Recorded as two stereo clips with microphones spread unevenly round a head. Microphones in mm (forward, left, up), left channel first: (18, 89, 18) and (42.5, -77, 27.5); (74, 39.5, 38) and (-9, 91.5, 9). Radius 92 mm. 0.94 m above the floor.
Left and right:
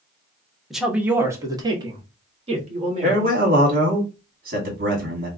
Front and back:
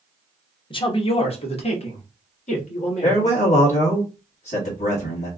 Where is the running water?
No running water in this recording.